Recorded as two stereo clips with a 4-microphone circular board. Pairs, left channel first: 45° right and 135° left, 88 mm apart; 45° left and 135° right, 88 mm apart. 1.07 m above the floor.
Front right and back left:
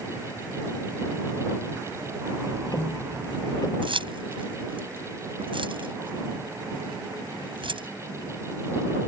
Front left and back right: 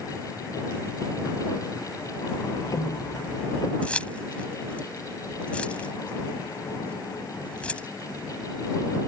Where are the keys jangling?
120° left.